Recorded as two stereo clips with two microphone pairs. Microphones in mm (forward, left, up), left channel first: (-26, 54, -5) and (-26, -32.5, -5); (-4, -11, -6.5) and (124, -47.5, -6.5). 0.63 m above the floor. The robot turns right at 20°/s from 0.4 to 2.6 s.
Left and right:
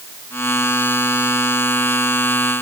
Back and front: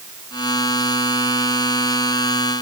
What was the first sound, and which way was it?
Only background noise.